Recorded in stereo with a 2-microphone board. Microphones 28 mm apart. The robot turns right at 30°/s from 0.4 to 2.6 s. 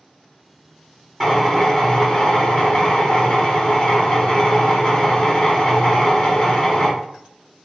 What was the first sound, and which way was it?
A drill, straight ahead.